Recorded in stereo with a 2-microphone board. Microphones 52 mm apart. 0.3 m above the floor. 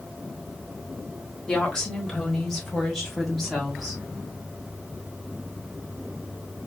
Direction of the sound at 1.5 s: 15° left (ahead or behind).